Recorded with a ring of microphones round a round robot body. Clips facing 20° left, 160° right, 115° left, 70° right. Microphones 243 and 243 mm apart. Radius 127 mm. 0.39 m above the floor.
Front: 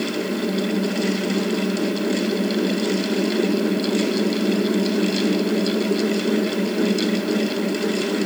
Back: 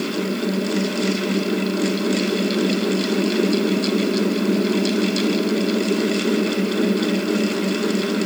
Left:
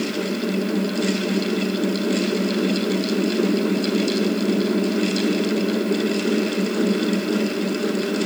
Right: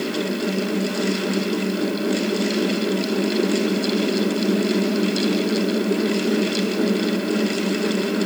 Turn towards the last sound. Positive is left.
No sound to turn to.